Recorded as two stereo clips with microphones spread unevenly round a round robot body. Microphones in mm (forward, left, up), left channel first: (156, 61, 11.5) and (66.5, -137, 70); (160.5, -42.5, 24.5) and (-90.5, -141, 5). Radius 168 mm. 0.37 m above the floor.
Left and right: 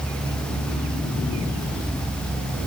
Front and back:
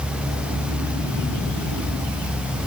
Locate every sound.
Only background noise.